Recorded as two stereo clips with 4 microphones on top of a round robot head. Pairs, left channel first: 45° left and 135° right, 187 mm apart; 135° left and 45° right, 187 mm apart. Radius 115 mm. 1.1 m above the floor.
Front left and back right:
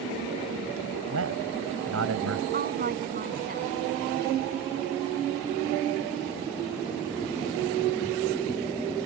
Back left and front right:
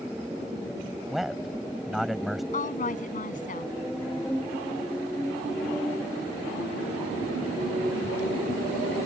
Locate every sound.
1.1 s a man speaking: 135° right
2.5 s a woman speaking: 175° right